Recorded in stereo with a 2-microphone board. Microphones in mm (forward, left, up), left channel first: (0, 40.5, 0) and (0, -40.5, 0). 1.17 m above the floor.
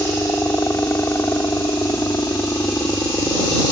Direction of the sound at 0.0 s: 30° left (ahead or behind).